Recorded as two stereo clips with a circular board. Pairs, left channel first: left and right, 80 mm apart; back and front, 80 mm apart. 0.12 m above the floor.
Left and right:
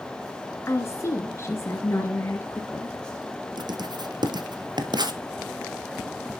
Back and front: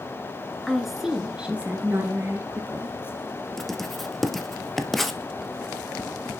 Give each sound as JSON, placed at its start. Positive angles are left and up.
{"t": 0.7, "sound": "a woman speaking", "azimuth_deg": 95, "distance_m": 1.4}
{"t": 3.6, "sound": "writing", "azimuth_deg": -95, "distance_m": 1.4}